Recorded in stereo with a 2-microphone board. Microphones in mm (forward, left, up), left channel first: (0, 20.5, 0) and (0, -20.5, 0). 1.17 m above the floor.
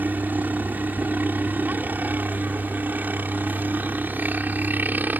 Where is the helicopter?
50° right (ahead or behind).